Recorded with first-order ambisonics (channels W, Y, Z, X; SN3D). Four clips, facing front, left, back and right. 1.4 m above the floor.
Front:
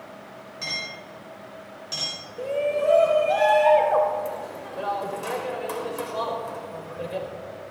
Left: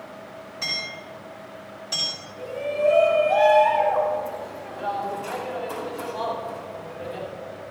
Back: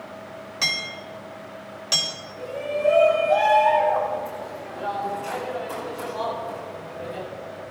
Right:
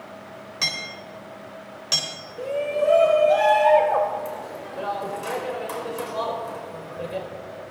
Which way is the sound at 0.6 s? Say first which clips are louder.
Right 2 dB, back 6 dB; 130° right.